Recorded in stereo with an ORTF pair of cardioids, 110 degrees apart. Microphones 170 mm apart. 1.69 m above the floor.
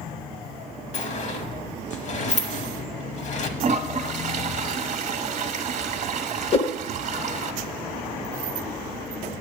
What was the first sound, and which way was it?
A sliding door, 45° left.